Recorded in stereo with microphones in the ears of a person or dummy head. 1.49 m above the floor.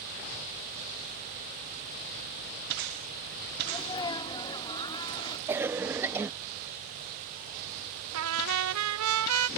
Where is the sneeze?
20° left (ahead or behind).